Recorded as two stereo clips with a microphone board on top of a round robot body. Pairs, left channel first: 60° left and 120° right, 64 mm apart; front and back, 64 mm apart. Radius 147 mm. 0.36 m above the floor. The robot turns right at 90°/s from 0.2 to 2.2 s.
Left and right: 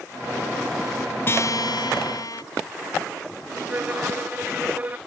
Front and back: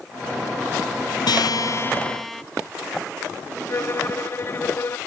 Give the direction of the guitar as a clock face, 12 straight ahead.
12 o'clock.